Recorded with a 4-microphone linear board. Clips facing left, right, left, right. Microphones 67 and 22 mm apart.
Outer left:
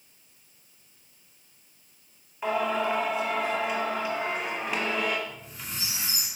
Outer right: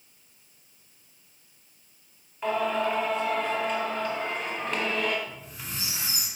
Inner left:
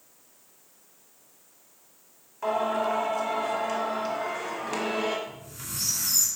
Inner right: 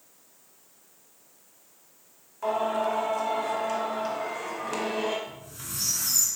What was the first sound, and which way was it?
Singing, 10° left (ahead or behind).